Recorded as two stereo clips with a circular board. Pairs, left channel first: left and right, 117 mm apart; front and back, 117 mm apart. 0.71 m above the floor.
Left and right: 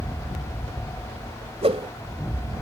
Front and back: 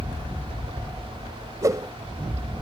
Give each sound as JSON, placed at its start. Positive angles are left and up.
{"t": 1.6, "sound": "a whoosh", "azimuth_deg": -120}